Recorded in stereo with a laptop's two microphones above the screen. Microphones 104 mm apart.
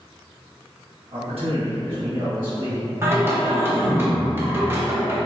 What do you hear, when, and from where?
1.1 s a man speaking: 65° right (ahead or behind), 1.2 m; by 2.9 s 55° right (ahead or behind), 2 m
3.0 s singing: 25° right (ahead or behind), 1.1 m